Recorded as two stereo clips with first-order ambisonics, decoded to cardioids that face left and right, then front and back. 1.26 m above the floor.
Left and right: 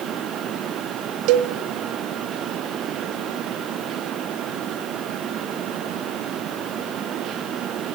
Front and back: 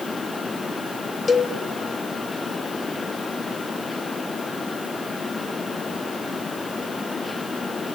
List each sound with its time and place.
1.3 s a cowbell: 75° right, 1.3 m